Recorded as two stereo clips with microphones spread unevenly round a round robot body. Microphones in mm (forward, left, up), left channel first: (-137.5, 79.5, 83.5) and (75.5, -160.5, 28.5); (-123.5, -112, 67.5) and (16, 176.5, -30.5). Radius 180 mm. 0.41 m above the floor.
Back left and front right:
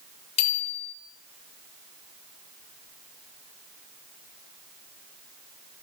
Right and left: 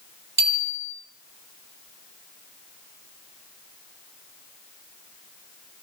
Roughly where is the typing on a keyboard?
No typing on a keyboard in this recording.